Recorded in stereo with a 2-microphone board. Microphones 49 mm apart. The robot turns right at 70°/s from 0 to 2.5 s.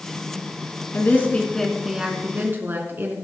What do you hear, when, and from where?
0.9 s a woman speaking: 125° left, 3.5 m; by 3.1 s 125° right, 3.5 m